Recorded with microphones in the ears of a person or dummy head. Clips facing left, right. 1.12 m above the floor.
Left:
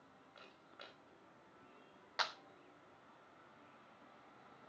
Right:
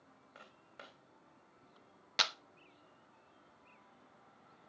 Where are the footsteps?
55° right (ahead or behind), 4.5 m.